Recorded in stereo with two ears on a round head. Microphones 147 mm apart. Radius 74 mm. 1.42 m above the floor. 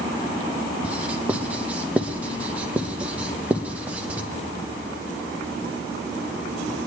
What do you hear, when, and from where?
0.8 s writing: 10° right (ahead or behind), 0.9 m